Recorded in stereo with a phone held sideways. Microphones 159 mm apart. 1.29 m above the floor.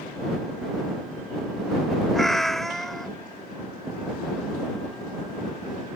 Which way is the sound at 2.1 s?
Centre (ahead or behind).